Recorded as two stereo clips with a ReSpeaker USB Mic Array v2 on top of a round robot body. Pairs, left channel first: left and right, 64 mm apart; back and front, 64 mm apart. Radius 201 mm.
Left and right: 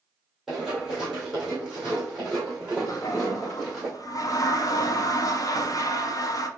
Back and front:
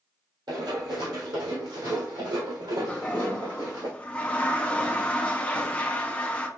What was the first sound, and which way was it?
Running footsteps, 5° right.